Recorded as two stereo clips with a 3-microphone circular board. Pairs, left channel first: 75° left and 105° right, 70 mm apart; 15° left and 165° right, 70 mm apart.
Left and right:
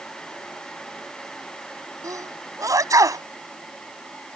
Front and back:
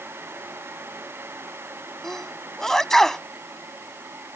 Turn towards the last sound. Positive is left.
turn(degrees=-70)